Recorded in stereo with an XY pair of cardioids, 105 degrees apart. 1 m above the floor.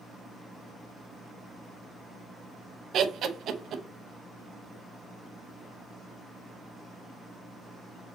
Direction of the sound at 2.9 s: 65° right.